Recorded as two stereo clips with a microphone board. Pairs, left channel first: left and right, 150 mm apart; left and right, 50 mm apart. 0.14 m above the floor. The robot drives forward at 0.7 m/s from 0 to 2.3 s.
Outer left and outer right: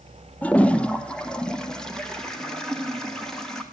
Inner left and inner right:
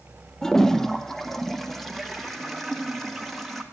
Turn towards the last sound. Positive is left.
turn(degrees=5)  # may be behind; listen again after turning